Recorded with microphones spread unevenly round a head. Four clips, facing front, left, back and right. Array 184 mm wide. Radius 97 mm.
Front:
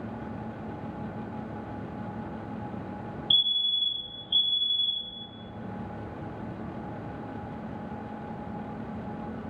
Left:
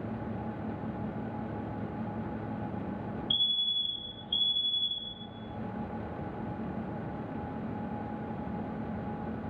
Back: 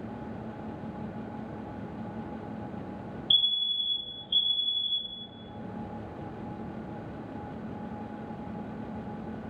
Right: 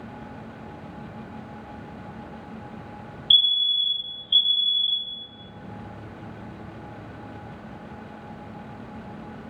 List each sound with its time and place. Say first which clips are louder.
3.3 s a fire alarm: right 9 dB, front 1 dB; 170° left, 0.8 m